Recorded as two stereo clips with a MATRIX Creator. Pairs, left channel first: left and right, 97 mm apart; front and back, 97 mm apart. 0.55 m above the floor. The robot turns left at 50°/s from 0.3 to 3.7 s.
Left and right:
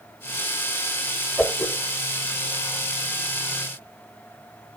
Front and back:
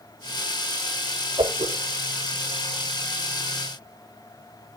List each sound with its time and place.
1.4 s a whoosh: 170° left, 0.6 m; by 1.7 s 150° left, 0.6 m